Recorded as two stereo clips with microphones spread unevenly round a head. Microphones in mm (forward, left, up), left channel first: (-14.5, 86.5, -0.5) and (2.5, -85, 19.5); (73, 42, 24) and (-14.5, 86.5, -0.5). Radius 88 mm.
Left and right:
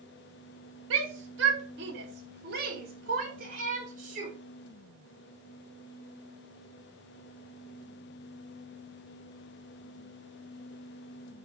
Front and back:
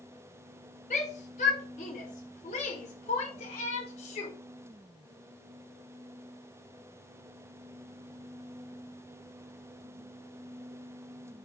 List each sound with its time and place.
0.9 s a shout: 65° right, 2.5 m; by 4.3 s 35° right, 5 m